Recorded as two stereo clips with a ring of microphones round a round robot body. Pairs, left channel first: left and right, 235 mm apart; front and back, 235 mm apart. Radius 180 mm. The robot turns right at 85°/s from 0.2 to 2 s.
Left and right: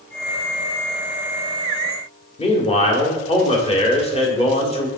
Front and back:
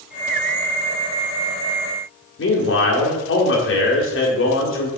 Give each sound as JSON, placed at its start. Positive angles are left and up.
{"t": 2.4, "sound": "a man speaking", "azimuth_deg": 25, "distance_m": 1.9}